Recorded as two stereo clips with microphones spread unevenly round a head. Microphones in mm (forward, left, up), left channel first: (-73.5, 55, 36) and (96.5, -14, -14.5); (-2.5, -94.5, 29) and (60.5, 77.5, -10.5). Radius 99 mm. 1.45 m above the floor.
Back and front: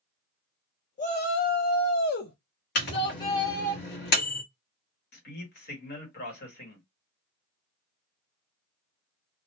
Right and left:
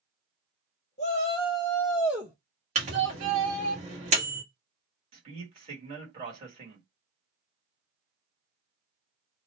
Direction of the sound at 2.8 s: 125° left.